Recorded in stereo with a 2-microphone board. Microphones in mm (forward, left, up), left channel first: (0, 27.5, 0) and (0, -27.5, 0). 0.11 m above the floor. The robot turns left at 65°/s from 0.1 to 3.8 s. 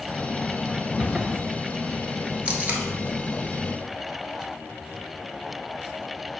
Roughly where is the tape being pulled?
Right.